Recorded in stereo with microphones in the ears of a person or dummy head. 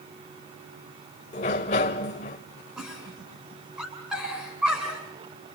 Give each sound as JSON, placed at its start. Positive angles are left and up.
{"t": 1.3, "sound": "a sliding door", "side_deg": 35, "distance_m": 1.4}
{"t": 2.8, "sound": "a giggle", "side_deg": -5, "distance_m": 8.0}